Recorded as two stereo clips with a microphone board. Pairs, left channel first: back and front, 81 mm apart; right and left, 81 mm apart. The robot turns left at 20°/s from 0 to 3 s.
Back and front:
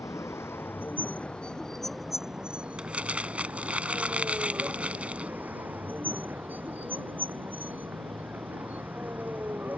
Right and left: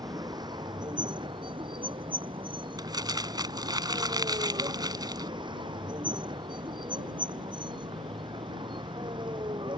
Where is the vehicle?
130° left; by 9.8 s 70° left.